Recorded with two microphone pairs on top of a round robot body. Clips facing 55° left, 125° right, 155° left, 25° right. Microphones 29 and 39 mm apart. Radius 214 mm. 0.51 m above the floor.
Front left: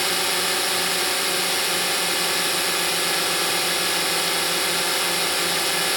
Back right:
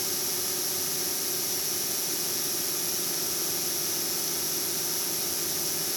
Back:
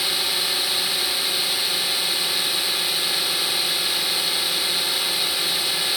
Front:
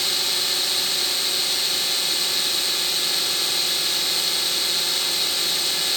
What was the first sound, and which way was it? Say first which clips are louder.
A drone: front left 11 dB, back 1 dB; 80° left.